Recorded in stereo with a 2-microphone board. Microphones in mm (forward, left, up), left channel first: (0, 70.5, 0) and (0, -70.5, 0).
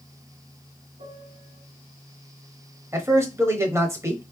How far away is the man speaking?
About 1.0 m.